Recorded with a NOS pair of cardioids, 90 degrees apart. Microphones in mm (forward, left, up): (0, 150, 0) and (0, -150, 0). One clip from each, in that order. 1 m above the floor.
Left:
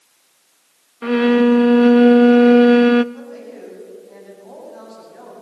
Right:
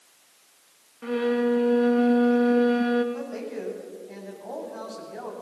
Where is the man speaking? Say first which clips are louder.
Right 2 dB; 35° right, 8.5 m.